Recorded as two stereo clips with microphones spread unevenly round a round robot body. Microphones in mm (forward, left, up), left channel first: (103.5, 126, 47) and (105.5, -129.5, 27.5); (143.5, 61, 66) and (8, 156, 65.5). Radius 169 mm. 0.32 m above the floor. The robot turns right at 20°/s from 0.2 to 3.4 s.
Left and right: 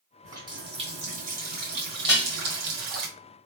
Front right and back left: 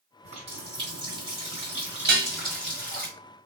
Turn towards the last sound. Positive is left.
turn(degrees=-165)